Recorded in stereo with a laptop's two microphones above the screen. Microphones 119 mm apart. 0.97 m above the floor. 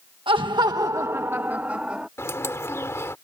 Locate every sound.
0.3 s laughter: 45° right (ahead or behind); by 2.1 s 10° right (ahead or behind)
2.2 s a bird: 25° left (ahead or behind)